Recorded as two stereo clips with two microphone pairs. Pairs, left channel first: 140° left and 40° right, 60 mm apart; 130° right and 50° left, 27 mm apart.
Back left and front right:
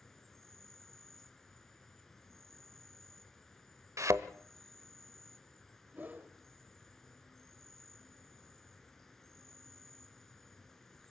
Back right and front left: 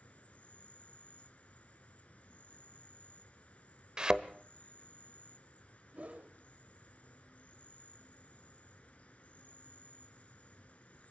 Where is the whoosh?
20° left, 1.3 m.